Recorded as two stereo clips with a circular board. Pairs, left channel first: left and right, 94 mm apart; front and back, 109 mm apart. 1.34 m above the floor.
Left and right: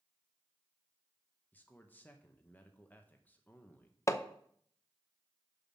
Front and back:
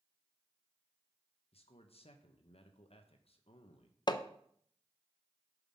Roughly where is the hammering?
Ahead left.